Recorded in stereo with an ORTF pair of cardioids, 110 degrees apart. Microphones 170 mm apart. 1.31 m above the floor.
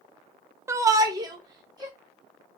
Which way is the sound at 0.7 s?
15° right.